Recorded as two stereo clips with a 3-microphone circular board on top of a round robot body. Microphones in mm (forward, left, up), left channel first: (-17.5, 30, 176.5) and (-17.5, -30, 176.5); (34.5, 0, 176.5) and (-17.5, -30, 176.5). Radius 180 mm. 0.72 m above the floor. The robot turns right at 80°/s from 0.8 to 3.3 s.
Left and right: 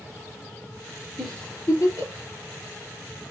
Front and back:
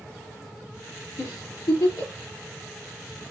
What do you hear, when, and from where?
1.2 s a giggle: straight ahead, 4.5 m; by 2.1 s 75° left, 4.5 m